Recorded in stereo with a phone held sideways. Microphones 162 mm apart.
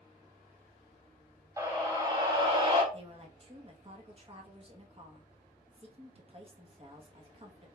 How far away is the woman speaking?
About 1.0 m.